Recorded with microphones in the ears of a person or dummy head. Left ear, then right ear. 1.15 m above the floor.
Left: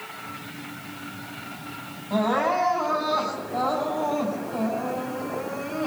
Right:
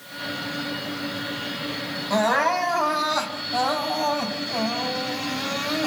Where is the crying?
50° right (ahead or behind), 6 m.